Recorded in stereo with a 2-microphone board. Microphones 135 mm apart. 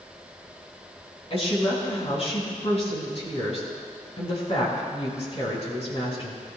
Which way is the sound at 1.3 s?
50° left (ahead or behind).